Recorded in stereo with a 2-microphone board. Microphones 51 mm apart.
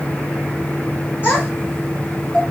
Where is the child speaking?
40° left (ahead or behind), 3 m; by 2.4 s 25° left (ahead or behind), 2.5 m.